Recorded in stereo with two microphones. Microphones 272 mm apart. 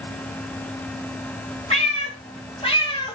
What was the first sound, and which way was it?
A cat meowing, 25° left (ahead or behind).